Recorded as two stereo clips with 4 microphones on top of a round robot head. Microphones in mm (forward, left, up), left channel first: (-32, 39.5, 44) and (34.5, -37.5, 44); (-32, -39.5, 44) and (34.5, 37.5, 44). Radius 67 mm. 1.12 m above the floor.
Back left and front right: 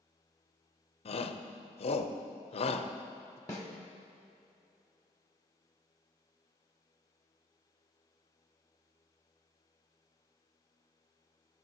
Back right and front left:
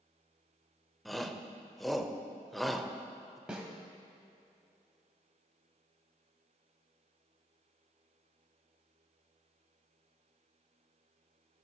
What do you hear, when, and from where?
1.1 s a shout: 140° left, 0.7 m
3.5 s a snare drum: 120° left, 1.0 m